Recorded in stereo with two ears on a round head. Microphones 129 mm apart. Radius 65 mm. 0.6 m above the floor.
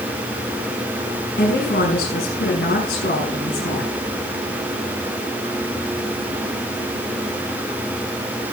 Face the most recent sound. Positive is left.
turn(degrees=60)  # may be behind; listen again after turning